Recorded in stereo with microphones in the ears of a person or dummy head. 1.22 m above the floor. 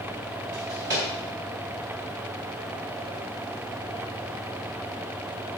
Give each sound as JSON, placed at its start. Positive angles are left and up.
{"t": 0.5, "sound": "a drawer", "side_deg": -15, "distance_m": 1.0}